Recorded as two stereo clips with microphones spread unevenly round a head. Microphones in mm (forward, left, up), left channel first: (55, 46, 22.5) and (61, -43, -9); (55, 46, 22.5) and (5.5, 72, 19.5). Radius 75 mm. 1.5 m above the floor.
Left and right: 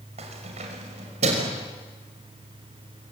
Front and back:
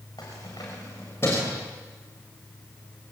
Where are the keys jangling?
85° right, 6 m; by 1.6 s 105° right, 5.5 m.